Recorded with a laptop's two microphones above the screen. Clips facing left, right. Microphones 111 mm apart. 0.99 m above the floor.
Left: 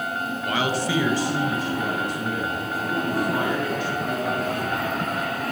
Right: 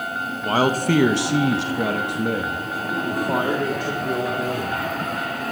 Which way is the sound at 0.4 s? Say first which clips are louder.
Right 6 dB; 30° right (ahead or behind).